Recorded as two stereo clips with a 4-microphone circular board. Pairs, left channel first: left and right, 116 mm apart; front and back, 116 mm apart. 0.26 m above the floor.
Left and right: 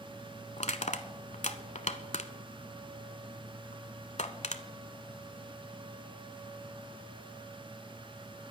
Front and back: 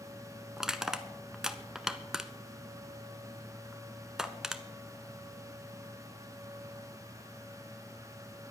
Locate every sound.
0.6 s crushing: 95° left, 0.8 m